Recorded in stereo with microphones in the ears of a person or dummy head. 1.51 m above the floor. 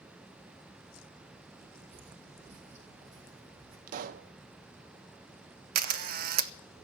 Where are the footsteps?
35° right (ahead or behind), 1.8 m.